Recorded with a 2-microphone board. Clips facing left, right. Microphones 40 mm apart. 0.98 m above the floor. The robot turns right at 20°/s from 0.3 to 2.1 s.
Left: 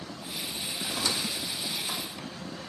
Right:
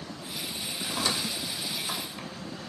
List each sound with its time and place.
0.9 s a squeak: 30° right (ahead or behind), 0.8 m; by 2.3 s 15° right (ahead or behind), 0.8 m